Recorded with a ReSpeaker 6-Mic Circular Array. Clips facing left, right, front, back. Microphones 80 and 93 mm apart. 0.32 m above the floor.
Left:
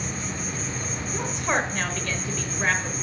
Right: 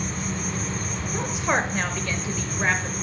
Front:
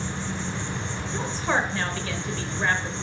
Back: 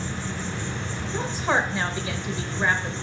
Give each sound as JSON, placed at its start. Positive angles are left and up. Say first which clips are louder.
{"t": 0.0, "sound": "an insect", "louder": "right 2 dB, even", "azimuth_deg": -65, "distance_m": 2.5}
{"t": 1.1, "sound": "a woman speaking", "louder": "right 1 dB, back 2 dB", "azimuth_deg": -145, "distance_m": 0.9}